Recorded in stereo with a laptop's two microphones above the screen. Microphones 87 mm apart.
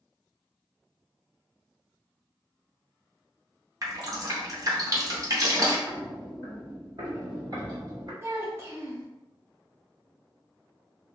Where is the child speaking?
30° right (ahead or behind), 0.6 m.